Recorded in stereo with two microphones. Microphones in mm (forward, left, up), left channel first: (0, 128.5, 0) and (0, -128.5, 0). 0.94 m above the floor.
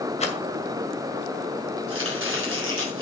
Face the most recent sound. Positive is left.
turn(degrees=-55)  # may be behind; listen again after turning